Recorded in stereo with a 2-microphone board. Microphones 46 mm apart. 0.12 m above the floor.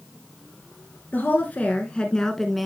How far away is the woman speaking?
About 1.8 m.